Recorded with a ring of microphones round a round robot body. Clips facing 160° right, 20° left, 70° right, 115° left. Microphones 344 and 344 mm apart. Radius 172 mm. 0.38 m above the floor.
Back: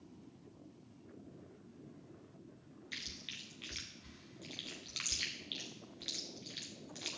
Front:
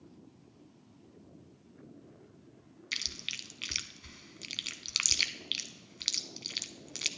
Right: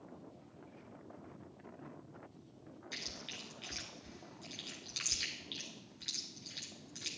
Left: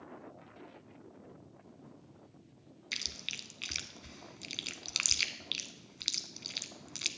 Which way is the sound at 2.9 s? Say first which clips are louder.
Front 1 dB, right 2 dB; 60° left.